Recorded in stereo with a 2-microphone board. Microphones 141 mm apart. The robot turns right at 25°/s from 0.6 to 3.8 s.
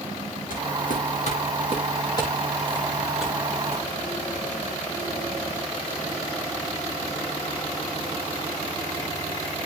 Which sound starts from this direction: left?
Footsteps, at 0.5 s.